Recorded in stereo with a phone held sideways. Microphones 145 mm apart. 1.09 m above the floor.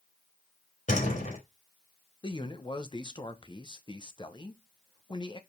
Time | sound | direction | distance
0.9 | a door slam | 60° left (ahead or behind) | 3 m
2.2 | a man speaking | 35° left (ahead or behind) | 1.0 m